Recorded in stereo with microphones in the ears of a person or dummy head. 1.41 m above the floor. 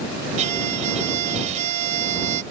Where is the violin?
35° right (ahead or behind).